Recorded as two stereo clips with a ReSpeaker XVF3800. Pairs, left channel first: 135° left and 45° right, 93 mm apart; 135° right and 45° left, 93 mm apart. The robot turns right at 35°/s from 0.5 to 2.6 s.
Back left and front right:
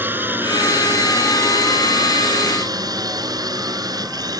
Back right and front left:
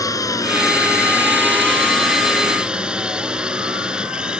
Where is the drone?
105° right; by 4.4 s 30° right.